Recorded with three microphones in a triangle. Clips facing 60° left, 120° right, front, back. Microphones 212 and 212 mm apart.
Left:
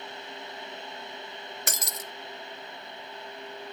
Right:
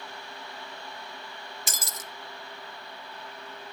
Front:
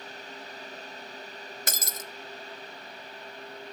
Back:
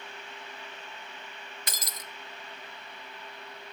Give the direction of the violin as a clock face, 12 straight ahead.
No violin in this recording.